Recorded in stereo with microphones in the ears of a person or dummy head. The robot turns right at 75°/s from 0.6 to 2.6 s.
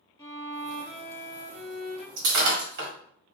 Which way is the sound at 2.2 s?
75° right (ahead or behind).